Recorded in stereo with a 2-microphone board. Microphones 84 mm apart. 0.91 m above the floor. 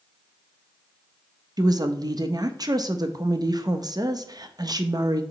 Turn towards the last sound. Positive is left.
turn(degrees=-50)  # may be behind; listen again after turning